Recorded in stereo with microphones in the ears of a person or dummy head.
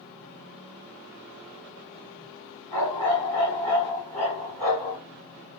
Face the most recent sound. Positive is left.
turn(degrees=-35)  # may be behind; listen again after turning